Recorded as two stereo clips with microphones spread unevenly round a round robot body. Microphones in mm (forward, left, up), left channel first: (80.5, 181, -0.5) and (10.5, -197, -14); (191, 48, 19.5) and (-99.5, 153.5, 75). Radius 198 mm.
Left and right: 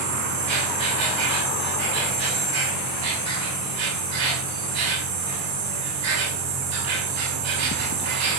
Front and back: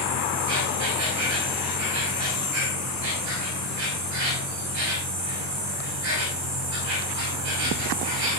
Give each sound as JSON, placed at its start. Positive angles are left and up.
{"t": 0.0, "sound": "an insect", "azimuth_deg": -150, "distance_m": 5.0}